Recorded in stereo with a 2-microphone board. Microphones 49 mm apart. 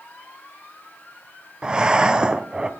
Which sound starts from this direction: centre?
Breathing, at 1.6 s.